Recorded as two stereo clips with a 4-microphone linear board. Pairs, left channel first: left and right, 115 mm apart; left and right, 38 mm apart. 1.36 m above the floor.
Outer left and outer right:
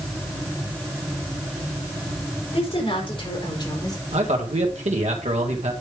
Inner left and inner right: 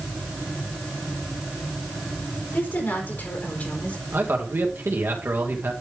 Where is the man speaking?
75° right (ahead or behind), 1.7 m.